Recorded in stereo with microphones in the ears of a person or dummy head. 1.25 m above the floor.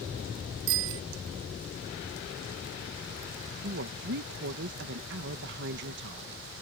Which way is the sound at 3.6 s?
60° right (ahead or behind).